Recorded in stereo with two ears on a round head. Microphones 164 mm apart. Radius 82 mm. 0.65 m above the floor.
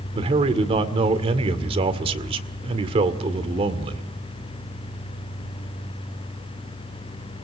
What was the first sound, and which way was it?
A man speaking, 30° right (ahead or behind).